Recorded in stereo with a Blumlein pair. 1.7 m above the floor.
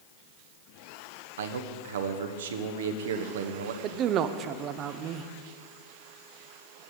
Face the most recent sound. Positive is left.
turn(degrees=-35)